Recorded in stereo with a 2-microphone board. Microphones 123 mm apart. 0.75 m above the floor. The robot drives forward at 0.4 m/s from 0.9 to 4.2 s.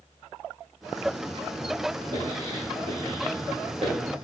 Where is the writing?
35° right (ahead or behind), 2 m; by 3.9 s 55° right (ahead or behind), 1.5 m.